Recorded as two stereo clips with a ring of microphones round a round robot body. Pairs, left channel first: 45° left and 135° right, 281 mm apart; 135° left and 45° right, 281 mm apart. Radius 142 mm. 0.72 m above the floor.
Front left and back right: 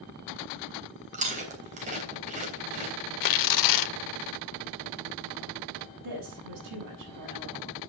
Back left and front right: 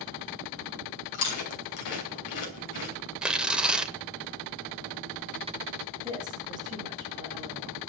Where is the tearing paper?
40° left, 0.7 m.